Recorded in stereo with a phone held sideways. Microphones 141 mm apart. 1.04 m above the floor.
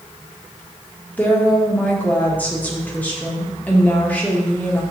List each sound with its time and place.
1.2 s a woman speaking: 10° left (ahead or behind), 1.5 m